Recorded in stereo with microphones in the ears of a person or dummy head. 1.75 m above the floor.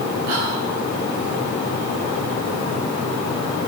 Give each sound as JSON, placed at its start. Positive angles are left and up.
{"t": 0.3, "sound": "whispering", "side_deg": -45, "distance_m": 0.8}